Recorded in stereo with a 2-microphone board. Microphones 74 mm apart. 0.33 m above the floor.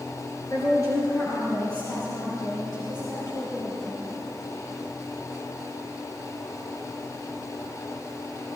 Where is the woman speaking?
45° left (ahead or behind), 4.5 m; by 4.0 s 75° left (ahead or behind), 6.5 m.